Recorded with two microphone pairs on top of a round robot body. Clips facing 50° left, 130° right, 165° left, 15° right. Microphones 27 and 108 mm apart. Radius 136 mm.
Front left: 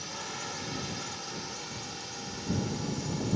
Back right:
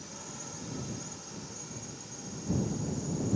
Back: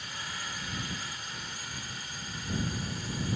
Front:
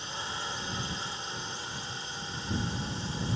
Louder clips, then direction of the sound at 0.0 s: Front left 7 dB, front 3 dB; 45° left.